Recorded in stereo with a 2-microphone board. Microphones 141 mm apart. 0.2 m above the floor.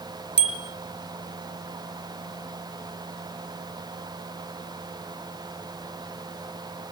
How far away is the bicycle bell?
About 2 m.